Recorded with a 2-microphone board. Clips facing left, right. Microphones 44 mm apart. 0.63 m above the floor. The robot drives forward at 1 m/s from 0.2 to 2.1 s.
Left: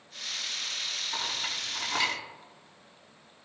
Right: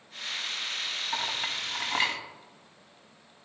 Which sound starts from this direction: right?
A clink, at 1.1 s.